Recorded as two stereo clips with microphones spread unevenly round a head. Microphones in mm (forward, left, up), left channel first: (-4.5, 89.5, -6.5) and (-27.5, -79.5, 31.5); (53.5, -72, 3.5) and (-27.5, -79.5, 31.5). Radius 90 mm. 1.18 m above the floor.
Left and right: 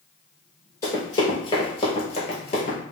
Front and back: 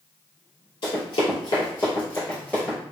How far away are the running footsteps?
About 1.4 m.